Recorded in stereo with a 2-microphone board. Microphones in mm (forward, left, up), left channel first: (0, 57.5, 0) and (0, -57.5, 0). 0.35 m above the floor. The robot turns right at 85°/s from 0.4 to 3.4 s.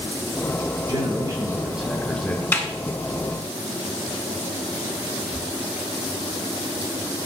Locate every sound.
0.9 s a man speaking: 90° right, 1.1 m; by 2.4 s 40° left, 1.1 m
2.5 s a snare drum: 20° left (ahead or behind), 0.8 m; by 2.7 s 5° left (ahead or behind), 0.8 m